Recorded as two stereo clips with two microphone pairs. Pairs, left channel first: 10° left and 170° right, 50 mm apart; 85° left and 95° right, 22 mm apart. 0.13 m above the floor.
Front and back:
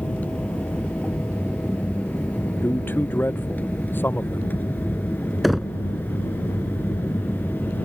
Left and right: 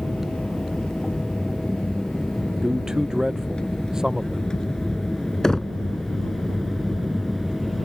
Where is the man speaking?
35° right.